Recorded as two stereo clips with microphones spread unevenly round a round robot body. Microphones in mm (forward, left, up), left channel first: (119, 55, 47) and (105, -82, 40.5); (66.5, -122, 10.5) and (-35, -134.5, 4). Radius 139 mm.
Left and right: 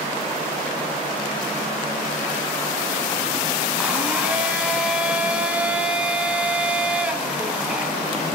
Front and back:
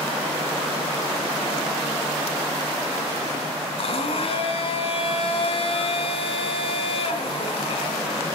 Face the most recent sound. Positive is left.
turn(degrees=-15)